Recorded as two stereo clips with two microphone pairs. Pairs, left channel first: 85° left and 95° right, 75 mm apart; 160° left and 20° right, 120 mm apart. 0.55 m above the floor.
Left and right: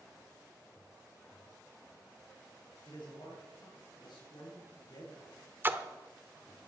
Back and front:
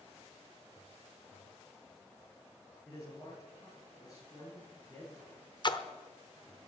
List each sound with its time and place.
2.9 s a man speaking: 95° left, 8 m
5.6 s a splash: 155° right, 0.9 m